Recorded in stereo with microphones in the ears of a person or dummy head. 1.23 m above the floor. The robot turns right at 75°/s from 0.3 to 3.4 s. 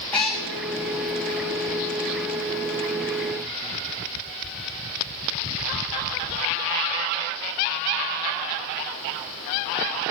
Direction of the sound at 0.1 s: 5° left (ahead or behind).